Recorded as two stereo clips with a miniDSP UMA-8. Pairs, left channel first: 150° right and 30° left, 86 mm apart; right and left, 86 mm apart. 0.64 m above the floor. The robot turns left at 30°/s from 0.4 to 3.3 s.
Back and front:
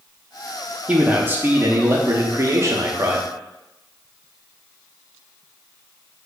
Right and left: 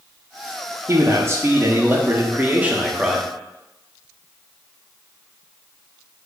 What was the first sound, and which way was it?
A man speaking, 85° left.